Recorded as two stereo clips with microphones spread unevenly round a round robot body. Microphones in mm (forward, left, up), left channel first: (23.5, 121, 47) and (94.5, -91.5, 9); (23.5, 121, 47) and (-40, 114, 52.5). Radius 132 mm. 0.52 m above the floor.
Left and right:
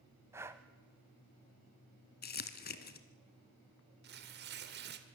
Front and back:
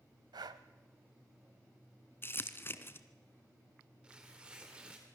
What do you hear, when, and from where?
0.3 s breathing: 155° right, 0.7 m
2.2 s crumpling: 60° left, 1.8 m
4.0 s tearing paper: 95° right, 1.8 m